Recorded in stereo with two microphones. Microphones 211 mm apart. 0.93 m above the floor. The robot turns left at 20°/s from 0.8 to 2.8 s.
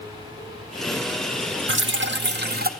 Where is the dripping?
65° right (ahead or behind), 0.6 m; by 2.7 s 45° right (ahead or behind), 0.6 m.